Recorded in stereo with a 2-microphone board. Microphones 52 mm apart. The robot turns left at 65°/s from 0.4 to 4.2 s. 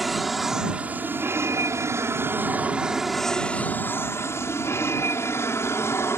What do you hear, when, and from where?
0.0 s an aircraft: straight ahead; by 6.2 s 110° left